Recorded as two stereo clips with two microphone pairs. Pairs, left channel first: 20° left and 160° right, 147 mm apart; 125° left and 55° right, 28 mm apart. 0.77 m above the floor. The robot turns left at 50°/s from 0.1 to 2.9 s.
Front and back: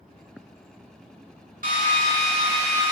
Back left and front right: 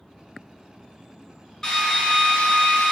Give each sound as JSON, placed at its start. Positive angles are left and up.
{"t": 1.6, "sound": "a drill", "azimuth_deg": -165, "distance_m": 2.0}